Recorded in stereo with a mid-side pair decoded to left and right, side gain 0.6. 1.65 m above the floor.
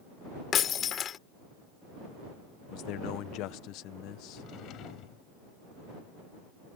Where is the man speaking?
70° left.